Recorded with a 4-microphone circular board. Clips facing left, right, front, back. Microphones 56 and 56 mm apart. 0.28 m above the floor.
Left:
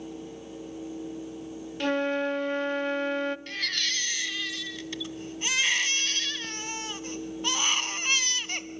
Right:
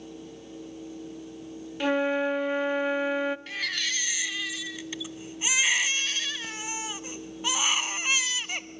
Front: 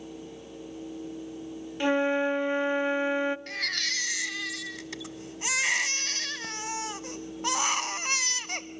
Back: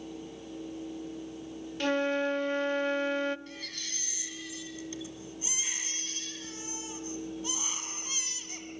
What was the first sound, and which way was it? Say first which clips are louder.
A flute: right 2 dB, front 4 dB; 30° right.